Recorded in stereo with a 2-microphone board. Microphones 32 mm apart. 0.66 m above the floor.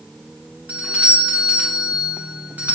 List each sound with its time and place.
0.7 s a doorbell: 55° right (ahead or behind), 2 m